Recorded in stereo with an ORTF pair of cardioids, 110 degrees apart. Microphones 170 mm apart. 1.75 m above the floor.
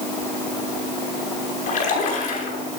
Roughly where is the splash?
Ahead left.